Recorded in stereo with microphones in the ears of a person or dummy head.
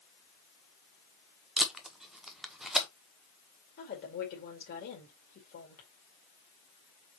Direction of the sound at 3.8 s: 55° left (ahead or behind).